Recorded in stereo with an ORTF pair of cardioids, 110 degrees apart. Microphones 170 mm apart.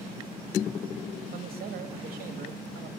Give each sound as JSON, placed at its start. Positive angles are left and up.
{"t": 1.3, "sound": "a man speaking", "azimuth_deg": -65, "distance_m": 2.5}